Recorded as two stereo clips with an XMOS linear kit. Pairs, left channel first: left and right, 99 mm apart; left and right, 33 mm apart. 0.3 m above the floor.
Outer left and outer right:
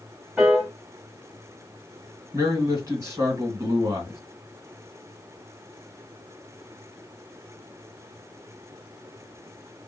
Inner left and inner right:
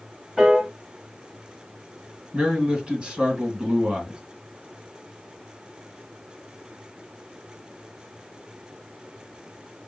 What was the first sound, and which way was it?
A piano, 10° right (ahead or behind).